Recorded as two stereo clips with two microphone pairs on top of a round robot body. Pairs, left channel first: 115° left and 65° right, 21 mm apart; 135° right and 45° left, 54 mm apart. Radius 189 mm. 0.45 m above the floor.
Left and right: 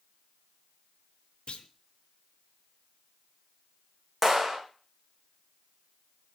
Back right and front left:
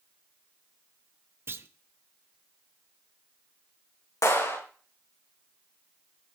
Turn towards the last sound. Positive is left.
turn(degrees=-140)